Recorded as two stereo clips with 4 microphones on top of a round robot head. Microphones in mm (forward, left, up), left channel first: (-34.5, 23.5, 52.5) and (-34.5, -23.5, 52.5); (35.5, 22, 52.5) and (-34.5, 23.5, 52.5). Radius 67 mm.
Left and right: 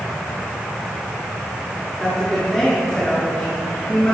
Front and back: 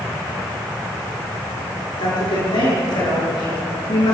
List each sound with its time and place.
2.0 s a woman speaking: 5° left, 7.5 m; by 4.2 s 15° left, 7 m